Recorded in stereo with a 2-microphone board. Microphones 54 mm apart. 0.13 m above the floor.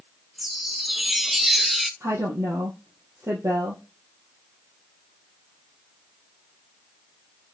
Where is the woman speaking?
65° right (ahead or behind), 3 m.